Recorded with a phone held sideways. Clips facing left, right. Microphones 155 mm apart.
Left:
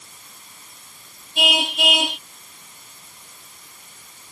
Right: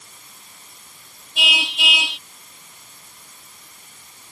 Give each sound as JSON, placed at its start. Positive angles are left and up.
{"t": 1.4, "sound": "a car horn", "side_deg": 50}